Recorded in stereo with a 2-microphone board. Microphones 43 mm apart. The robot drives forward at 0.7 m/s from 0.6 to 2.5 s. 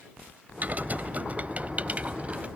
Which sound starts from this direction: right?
Typing on a keyboard, at 0.6 s.